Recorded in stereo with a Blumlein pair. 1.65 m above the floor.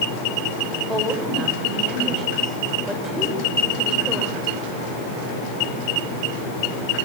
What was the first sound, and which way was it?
A woman speaking, 10° right.